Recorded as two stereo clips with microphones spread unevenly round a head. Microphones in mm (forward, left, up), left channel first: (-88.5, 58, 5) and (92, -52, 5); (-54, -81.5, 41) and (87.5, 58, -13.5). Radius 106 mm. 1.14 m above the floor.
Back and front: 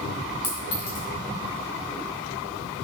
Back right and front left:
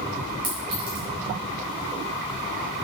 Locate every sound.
0.4 s a clink: 115° left, 5 m